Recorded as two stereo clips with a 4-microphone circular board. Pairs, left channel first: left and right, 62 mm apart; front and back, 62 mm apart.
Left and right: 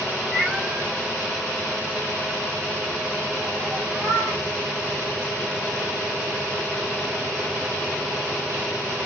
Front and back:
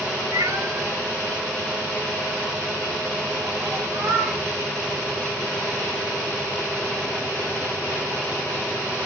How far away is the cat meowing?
About 1.2 m.